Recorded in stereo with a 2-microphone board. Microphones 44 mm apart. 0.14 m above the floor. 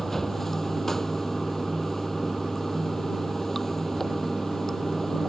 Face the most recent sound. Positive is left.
turn(degrees=10)  # may be behind; listen again after turning